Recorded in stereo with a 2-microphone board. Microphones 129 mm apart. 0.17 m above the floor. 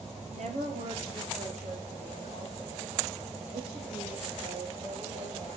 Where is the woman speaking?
60° right (ahead or behind), 3.5 m.